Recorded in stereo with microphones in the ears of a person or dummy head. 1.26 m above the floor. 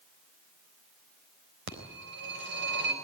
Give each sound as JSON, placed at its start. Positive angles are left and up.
{"t": 1.7, "sound": "a phone ringing", "side_deg": -55, "distance_m": 3.5}